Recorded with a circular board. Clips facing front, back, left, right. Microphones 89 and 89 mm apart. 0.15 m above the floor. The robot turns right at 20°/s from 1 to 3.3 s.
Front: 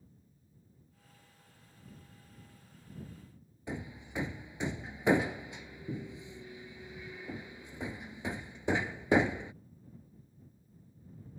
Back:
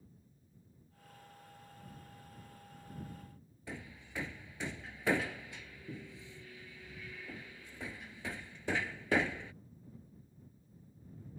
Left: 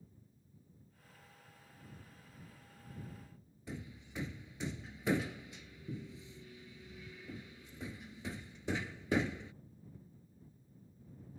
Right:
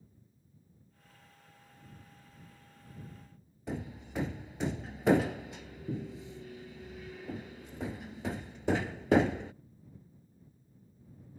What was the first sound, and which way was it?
Hammering, 70° right.